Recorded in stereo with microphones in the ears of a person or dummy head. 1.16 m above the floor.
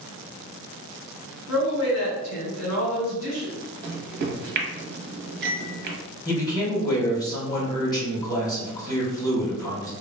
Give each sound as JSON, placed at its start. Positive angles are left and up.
{"t": 1.5, "sound": "a woman speaking", "side_deg": 80, "distance_m": 1.9}
{"t": 3.8, "sound": "a microwave", "side_deg": -65, "distance_m": 0.7}
{"t": 6.2, "sound": "a man speaking", "side_deg": 25, "distance_m": 1.4}